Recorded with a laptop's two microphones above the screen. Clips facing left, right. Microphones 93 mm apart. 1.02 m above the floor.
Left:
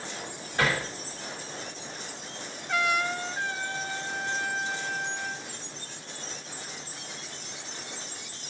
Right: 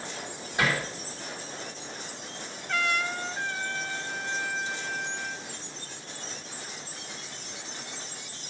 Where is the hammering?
15° right (ahead or behind), 3 m.